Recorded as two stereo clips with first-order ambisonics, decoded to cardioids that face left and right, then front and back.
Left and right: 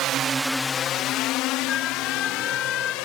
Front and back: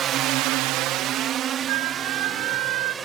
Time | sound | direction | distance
0.0 | a drone | 125° right | ?
1.7 | a flute | 155° left | ?